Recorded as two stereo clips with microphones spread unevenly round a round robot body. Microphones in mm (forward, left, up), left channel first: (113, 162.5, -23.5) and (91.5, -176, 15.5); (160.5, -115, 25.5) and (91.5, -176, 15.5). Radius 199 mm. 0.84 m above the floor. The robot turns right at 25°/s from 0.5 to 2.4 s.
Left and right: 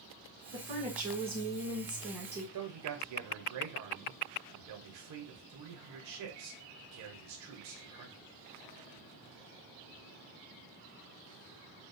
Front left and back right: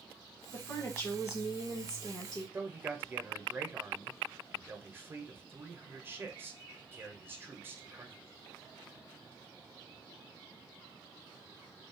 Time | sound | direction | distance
0.5 | a woman speaking | 15° right | 1.2 m
2.5 | a man speaking | 85° right | 0.7 m